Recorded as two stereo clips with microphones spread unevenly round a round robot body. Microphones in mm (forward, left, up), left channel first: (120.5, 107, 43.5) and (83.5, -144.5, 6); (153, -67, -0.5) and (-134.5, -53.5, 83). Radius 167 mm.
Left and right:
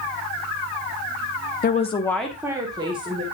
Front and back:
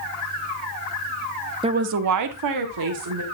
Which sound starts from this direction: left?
A woman speaking, at 1.6 s.